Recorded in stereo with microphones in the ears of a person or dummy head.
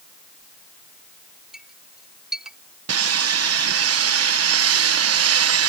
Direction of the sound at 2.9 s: 75° right (ahead or behind).